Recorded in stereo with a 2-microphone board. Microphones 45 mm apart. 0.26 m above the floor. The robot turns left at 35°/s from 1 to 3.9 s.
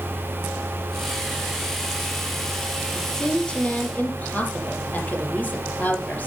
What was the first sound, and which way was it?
A woman speaking, straight behind.